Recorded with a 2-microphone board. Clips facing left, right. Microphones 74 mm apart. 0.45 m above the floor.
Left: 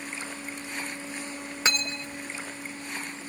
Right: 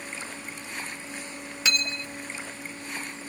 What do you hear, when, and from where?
1.6 s cutlery clinking: 35° left (ahead or behind), 0.6 m